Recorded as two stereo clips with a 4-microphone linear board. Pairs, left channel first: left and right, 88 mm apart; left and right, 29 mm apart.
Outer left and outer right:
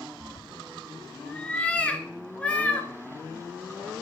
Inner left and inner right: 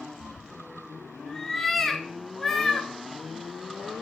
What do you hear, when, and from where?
0.2 s a cat meowing: 15° left (ahead or behind), 0.9 m